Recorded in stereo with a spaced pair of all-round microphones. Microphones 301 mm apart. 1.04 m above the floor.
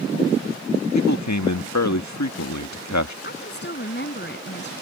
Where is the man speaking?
75° left (ahead or behind).